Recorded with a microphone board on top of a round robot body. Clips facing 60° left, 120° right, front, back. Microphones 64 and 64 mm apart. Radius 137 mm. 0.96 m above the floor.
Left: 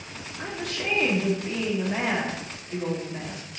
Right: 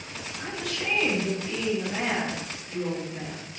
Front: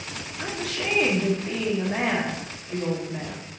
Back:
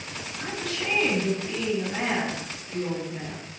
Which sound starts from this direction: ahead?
A woman speaking, at 0.4 s.